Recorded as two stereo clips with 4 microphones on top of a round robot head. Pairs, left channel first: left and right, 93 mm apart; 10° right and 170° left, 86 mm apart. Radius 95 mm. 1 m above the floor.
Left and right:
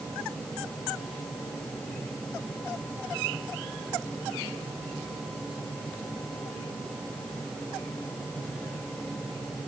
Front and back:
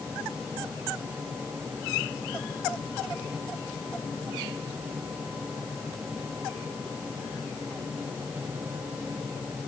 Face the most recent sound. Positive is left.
No sound to turn to.